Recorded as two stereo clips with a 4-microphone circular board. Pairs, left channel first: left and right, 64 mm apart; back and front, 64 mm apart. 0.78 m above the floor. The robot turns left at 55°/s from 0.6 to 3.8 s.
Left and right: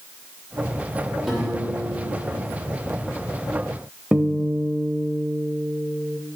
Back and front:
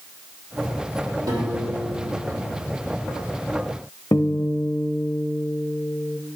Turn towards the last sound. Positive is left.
turn(degrees=-165)